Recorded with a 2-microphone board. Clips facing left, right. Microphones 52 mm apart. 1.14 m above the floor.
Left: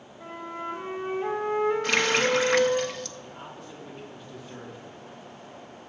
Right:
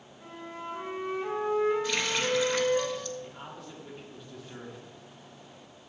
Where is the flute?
35° left (ahead or behind), 2.5 m.